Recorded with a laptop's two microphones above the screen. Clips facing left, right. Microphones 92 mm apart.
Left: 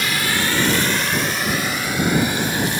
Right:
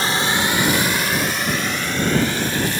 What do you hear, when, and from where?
0.0 s a drone: 35° right (ahead or behind); by 2.8 s 15° left (ahead or behind)